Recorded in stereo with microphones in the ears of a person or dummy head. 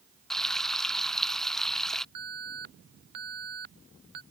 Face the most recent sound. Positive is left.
turn(degrees=-50)  # may be behind; listen again after turning